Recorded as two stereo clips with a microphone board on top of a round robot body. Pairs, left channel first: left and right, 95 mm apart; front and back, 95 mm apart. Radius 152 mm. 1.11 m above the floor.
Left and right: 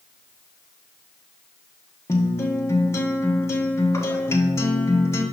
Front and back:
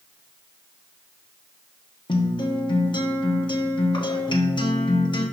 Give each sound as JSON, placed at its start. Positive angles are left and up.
{"t": 2.1, "sound": "a guitar", "azimuth_deg": 30, "distance_m": 1.4}